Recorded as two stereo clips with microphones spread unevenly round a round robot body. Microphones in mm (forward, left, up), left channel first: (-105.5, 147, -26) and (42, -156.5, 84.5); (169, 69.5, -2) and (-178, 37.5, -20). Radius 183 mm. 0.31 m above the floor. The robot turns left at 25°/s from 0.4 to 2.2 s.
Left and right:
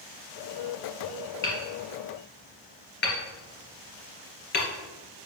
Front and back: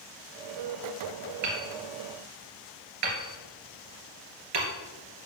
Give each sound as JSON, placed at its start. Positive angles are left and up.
{"t": 1.4, "sound": "hammering", "azimuth_deg": -165, "distance_m": 2.0}